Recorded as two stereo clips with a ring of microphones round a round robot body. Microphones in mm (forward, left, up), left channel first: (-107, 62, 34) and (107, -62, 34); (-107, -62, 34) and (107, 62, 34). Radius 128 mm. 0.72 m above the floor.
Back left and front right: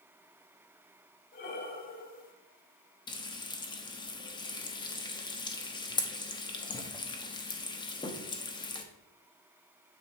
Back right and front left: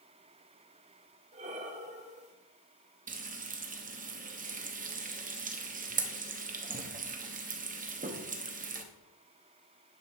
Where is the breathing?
95° left, 1.2 m.